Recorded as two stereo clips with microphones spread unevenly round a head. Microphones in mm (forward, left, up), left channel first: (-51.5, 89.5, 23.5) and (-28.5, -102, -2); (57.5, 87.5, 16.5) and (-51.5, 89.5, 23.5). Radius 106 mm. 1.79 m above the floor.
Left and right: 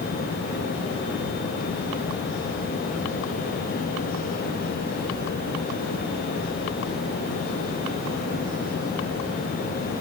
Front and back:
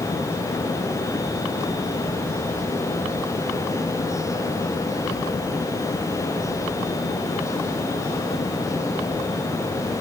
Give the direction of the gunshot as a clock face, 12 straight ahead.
No gunshot in this recording.